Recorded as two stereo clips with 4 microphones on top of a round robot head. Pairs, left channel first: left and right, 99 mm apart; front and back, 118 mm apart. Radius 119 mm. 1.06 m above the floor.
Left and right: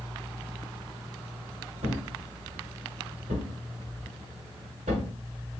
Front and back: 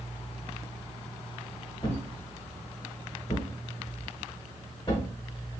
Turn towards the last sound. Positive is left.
turn(degrees=-70)